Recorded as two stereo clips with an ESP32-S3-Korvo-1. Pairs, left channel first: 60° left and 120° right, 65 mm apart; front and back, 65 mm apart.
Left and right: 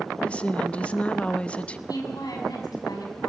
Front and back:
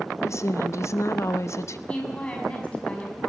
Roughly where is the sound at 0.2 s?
Ahead.